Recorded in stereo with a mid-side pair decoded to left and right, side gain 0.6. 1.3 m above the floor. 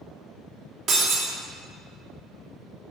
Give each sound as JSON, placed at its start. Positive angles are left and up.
{"t": 0.9, "sound": "breaking glass", "azimuth_deg": -55, "distance_m": 2.5}